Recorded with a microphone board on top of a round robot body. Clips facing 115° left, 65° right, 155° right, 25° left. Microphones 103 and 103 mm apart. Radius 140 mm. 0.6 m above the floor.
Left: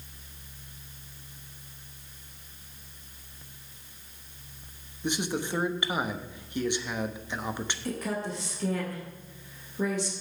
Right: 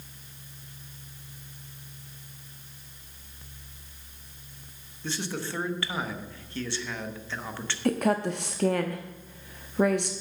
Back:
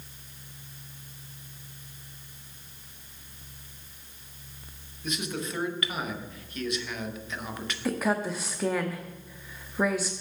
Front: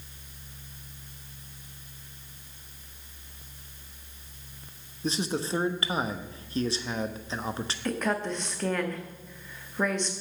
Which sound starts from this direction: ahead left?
A man speaking, at 5.0 s.